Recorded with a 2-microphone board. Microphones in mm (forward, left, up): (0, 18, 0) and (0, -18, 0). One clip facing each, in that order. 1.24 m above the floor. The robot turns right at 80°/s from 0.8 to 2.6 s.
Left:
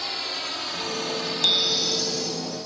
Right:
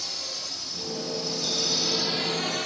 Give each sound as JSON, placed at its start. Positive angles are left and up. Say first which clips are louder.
{"t": 0.0, "sound": "a drone", "louder": "left 6 dB", "side_deg": 40}
{"t": 1.4, "sound": "a bicycle bell", "louder": "left 8 dB", "azimuth_deg": 100}